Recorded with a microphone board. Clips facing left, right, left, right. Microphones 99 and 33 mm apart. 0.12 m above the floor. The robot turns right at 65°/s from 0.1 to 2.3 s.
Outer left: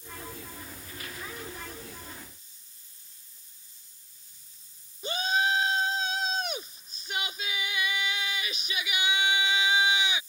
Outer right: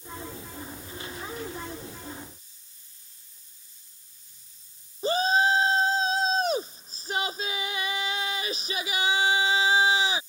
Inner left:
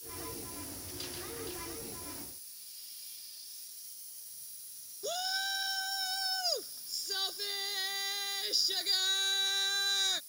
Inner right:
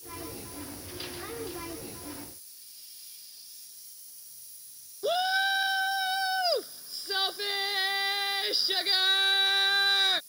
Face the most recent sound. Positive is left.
turn(degrees=-35)  # may be behind; listen again after turning